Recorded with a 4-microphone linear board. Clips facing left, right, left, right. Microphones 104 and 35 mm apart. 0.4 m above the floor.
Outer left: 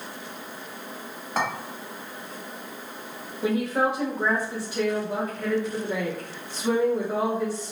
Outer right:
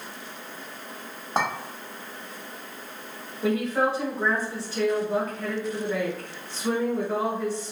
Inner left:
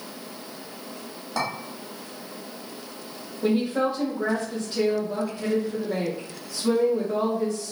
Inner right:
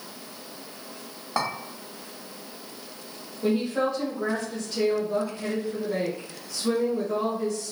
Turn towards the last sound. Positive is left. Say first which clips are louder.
# even, inner left 2 dB
turn(degrees=15)  # may be behind; listen again after turning